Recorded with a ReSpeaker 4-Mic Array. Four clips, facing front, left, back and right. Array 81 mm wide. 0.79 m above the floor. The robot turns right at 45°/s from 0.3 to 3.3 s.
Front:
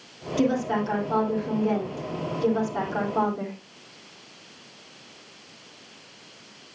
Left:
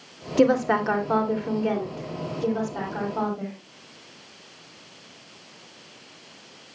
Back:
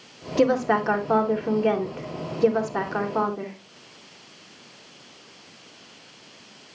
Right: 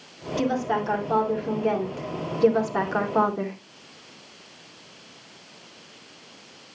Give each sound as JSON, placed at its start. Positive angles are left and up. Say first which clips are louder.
{"t": 0.4, "sound": "a woman speaking", "louder": "left 5 dB, back 4 dB", "azimuth_deg": 120, "distance_m": 2.5}